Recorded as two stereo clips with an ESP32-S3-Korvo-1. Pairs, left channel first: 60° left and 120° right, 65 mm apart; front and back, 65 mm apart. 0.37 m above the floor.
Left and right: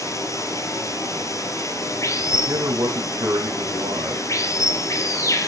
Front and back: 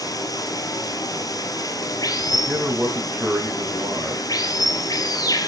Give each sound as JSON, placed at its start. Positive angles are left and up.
{"t": 0.0, "sound": "running water", "azimuth_deg": 25, "distance_m": 2.5}
{"t": 2.5, "sound": "a man speaking", "azimuth_deg": -120, "distance_m": 2.5}